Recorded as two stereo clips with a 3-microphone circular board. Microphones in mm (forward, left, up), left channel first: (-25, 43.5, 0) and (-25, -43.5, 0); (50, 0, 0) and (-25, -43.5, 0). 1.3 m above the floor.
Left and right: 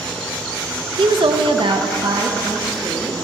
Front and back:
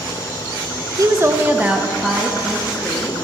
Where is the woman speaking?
100° right, 0.9 m; by 3.1 s 55° right, 2.5 m.